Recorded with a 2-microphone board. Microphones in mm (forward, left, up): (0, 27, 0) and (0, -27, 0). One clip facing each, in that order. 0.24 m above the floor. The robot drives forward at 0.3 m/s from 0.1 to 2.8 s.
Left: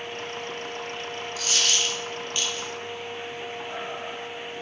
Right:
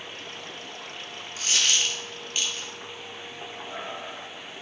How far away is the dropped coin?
About 0.7 m.